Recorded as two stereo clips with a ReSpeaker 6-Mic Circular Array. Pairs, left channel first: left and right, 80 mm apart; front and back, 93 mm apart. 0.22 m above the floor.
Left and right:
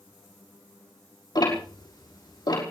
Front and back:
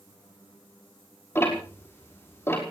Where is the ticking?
65° left, 5.5 m.